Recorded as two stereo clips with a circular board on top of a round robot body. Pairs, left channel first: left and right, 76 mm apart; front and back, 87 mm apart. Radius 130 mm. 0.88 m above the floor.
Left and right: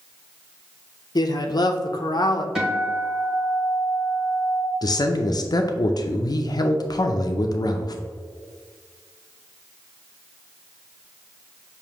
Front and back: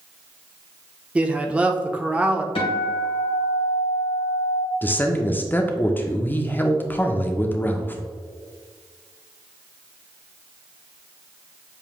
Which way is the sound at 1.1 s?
105° left.